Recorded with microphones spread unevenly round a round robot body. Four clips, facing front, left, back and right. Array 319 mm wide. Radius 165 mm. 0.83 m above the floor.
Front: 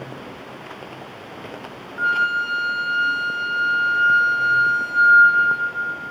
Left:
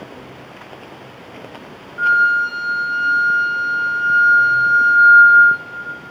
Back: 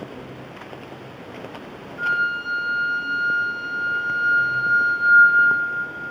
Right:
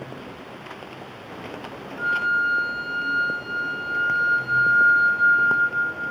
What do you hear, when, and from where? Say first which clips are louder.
2.0 s a flute: left 8 dB, front 3 dB; 70° left, 1.0 m